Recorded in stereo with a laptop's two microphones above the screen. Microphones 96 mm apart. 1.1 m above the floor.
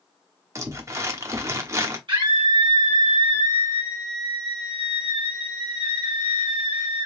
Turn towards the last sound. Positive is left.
turn(degrees=-55)  # may be behind; listen again after turning